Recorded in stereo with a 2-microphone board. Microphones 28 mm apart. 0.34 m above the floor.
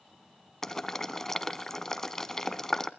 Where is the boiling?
10° left (ahead or behind), 0.7 m.